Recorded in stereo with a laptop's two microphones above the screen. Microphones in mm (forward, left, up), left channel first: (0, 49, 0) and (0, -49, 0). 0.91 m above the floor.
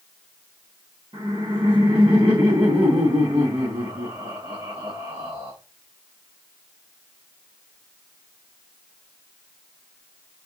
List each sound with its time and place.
1.1 s laughter: 60° right (ahead or behind), 1.7 m